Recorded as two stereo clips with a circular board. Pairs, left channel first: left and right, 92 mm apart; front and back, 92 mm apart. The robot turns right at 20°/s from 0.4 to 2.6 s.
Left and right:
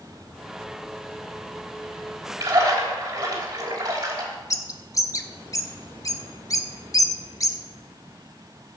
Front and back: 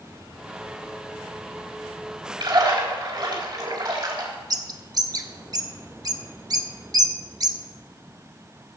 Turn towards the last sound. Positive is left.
turn(degrees=140)